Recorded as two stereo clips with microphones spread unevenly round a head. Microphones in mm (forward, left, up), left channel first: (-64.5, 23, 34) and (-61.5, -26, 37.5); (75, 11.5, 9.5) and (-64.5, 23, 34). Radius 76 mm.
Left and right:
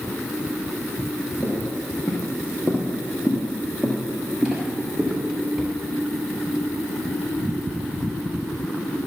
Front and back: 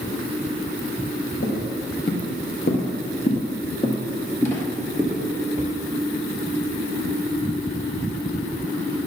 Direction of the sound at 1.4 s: 10° left.